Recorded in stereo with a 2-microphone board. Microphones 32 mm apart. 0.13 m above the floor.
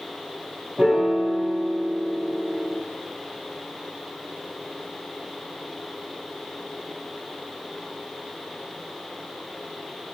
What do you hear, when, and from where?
0.8 s a piano: 20° right (ahead or behind), 0.9 m